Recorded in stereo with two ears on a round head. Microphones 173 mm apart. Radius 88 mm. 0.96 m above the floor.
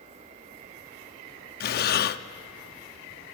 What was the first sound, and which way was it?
Breathing, 55° left (ahead or behind).